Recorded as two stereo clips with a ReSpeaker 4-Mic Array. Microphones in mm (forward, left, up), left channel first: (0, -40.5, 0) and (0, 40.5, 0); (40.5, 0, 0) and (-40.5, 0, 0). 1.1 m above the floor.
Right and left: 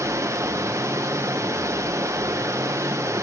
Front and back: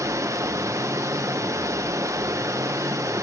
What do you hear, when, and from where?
0.0 s running water: 135° left, 0.7 m